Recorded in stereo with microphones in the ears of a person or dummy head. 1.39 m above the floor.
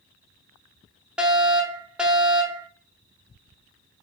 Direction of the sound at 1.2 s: 5° right (ahead or behind).